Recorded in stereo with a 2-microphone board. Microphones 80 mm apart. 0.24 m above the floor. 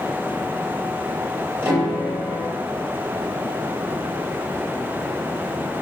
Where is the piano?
40° right (ahead or behind), 5 m.